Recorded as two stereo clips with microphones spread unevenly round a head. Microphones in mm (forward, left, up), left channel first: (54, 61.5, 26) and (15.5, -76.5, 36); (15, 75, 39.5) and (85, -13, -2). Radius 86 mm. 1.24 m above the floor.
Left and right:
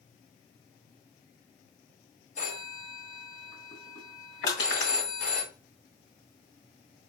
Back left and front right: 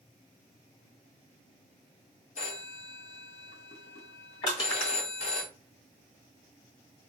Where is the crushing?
105° left, 2.5 m.